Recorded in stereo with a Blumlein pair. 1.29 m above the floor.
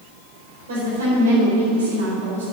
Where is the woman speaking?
60° right, 4 m.